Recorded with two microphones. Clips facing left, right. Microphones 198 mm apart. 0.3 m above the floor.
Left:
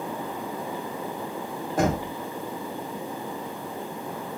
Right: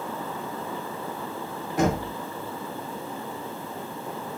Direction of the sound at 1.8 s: 45° left (ahead or behind).